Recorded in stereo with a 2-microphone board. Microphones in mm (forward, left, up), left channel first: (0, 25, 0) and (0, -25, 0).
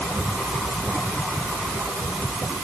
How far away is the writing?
No writing in this recording.